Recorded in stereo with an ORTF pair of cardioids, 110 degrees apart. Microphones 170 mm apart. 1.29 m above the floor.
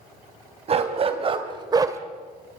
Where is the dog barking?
40° right, 3 m; by 2.0 s 20° right, 1.5 m.